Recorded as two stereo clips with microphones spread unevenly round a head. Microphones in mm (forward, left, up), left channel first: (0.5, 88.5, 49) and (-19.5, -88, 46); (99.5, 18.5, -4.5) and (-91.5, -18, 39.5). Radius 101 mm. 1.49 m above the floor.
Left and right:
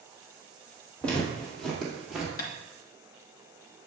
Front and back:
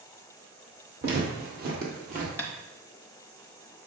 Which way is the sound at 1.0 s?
165° left.